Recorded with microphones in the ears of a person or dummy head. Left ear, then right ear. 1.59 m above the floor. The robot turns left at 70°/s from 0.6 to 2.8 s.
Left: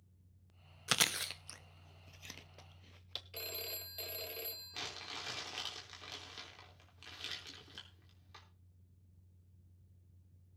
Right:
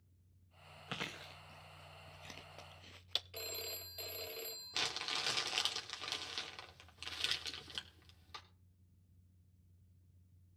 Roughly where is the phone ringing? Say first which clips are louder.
Even; centre.